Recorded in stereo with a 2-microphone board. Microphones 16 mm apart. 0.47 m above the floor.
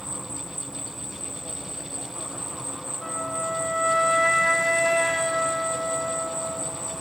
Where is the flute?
10° left (ahead or behind), 1.1 m.